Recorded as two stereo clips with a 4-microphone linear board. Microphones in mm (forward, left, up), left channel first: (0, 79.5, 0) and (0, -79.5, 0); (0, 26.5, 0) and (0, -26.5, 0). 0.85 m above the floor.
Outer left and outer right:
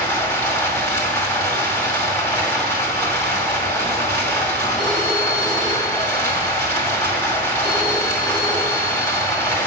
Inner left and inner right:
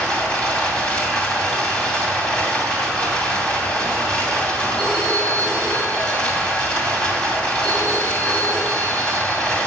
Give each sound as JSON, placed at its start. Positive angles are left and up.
{"t": 0.0, "sound": "running water", "side_deg": 20, "distance_m": 2.5}
{"t": 4.8, "sound": "a phone ringing", "side_deg": 30, "distance_m": 3.0}